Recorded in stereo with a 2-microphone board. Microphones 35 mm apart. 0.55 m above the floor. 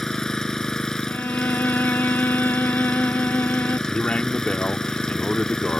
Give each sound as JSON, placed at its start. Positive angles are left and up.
{"t": 0.0, "sound": "an engine running", "side_deg": 15}
{"t": 1.1, "sound": "a violin", "side_deg": 80}
{"t": 3.9, "sound": "a man speaking", "side_deg": 40}